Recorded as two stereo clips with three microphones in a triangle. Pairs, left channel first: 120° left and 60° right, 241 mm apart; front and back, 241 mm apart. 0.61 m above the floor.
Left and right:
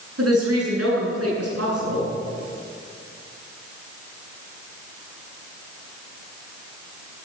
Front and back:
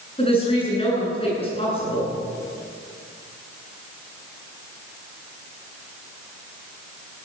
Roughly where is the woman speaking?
Ahead right.